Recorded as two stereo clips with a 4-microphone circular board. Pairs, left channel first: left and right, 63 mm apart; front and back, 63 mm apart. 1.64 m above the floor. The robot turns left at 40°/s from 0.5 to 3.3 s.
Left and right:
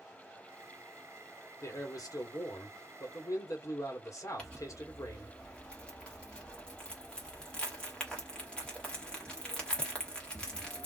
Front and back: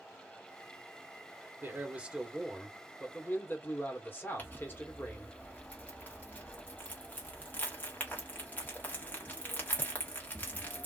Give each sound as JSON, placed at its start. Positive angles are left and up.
{"t": 1.6, "sound": "a man speaking", "azimuth_deg": 125, "distance_m": 1.2}
{"t": 4.4, "sound": "crumpling", "azimuth_deg": 25, "distance_m": 1.3}